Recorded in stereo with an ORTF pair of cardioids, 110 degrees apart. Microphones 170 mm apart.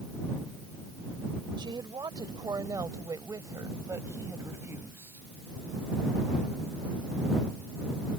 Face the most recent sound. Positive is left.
turn(degrees=-15)